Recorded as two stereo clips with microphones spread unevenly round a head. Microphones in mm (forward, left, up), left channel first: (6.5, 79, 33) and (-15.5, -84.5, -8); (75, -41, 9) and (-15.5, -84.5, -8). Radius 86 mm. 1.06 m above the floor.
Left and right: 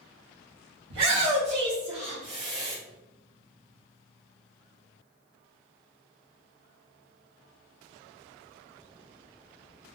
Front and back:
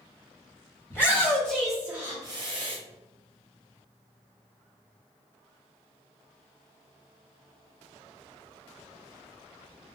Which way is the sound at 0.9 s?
45° right.